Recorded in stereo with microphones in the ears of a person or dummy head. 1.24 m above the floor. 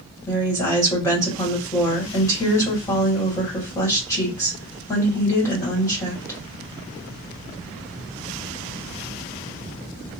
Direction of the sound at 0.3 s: 15° left (ahead or behind).